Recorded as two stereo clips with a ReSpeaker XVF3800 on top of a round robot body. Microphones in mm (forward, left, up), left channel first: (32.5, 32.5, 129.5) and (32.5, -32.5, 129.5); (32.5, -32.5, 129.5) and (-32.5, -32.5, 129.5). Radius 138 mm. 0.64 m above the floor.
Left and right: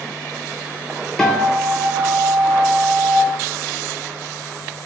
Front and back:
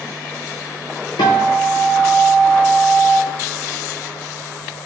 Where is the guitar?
10° left, 0.6 m.